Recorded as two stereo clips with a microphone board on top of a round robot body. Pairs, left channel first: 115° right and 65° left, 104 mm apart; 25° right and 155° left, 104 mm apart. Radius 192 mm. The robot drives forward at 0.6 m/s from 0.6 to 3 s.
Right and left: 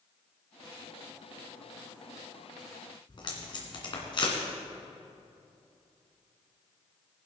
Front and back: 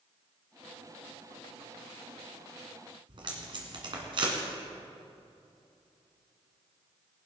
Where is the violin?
I don't hear a violin.